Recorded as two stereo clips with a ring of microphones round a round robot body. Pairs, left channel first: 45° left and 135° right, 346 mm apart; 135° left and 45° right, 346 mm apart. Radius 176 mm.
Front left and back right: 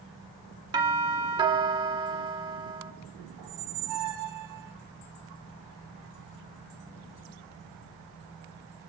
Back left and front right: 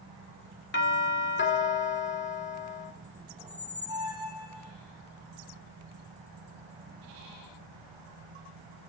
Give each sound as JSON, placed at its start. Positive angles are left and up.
{"t": 0.7, "sound": "a doorbell", "azimuth_deg": 160, "distance_m": 1.8}
{"t": 3.4, "sound": "a squeak", "azimuth_deg": -120, "distance_m": 3.5}